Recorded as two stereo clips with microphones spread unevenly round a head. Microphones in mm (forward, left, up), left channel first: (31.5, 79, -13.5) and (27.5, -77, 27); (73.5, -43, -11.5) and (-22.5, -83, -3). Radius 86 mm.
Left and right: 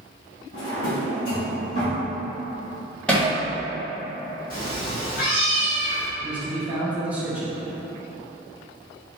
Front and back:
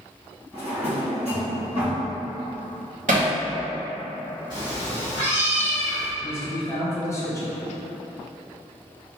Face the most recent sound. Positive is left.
turn(degrees=10)